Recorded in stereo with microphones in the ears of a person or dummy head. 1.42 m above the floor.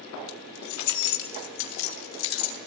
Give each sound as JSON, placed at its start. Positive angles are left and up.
{"t": 0.3, "sound": "keys jangling", "side_deg": 85, "distance_m": 3.5}